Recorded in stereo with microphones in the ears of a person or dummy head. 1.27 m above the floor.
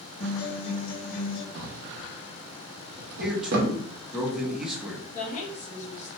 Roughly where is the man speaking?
Centre.